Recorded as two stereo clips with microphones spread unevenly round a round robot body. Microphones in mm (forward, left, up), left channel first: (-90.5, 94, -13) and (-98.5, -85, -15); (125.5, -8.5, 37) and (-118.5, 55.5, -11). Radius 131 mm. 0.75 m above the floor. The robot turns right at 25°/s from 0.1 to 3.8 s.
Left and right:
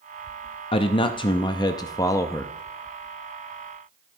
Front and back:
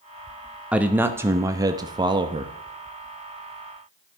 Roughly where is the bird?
No bird in this recording.